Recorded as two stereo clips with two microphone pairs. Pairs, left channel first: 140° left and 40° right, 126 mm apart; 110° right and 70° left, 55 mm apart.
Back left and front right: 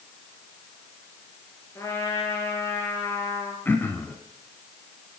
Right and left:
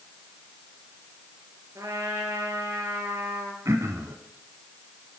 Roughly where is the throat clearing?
Left.